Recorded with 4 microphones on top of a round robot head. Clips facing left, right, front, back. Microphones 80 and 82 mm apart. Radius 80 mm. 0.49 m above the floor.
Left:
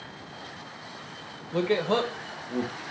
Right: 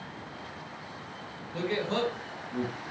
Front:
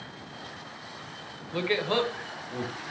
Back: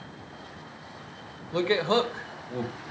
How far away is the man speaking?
About 1.9 m.